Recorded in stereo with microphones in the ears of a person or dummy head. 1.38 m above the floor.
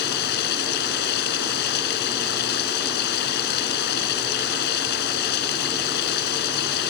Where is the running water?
60° left (ahead or behind).